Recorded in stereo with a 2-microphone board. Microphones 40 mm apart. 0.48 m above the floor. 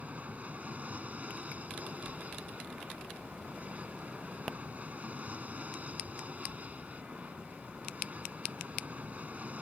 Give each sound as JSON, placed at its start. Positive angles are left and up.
{"t": 0.0, "sound": "an aircraft", "side_deg": -35}